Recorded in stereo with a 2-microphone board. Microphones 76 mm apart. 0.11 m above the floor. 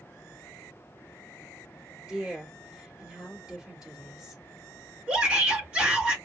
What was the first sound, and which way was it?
A woman speaking, 10° right (ahead or behind).